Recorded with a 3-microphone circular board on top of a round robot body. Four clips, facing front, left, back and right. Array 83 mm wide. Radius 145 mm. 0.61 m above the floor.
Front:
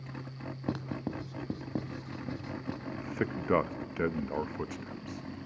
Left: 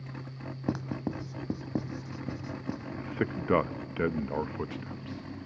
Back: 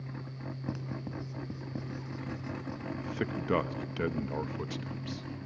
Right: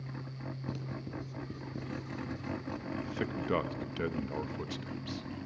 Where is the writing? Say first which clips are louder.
Left 11 dB, front 5 dB; 65° left, 1.0 m.